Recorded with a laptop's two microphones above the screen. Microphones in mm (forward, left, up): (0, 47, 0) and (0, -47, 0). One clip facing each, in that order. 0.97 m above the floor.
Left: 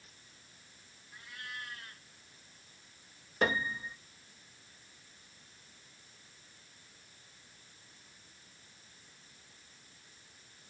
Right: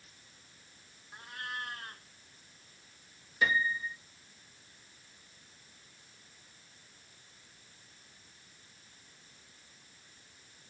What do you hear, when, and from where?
1.1 s a cat meowing: 45° right (ahead or behind)
3.4 s a piano: 55° left (ahead or behind)